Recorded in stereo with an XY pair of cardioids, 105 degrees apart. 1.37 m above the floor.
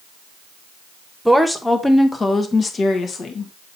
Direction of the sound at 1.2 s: Straight ahead.